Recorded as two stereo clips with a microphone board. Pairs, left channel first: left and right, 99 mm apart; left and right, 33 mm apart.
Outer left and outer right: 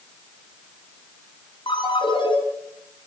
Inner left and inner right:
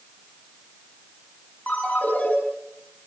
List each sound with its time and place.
1.7 s a ringtone: 55° left (ahead or behind), 7 m